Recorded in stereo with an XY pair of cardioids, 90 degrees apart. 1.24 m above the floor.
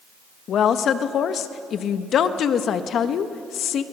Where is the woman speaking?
70° left, 1.2 m.